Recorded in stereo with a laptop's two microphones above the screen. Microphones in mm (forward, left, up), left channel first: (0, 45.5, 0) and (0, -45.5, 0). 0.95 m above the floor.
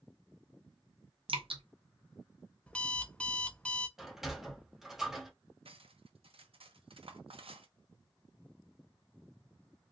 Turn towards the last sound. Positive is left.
turn(degrees=-70)  # may be behind; listen again after turning